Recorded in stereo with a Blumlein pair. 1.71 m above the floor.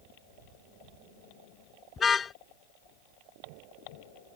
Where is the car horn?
15° left.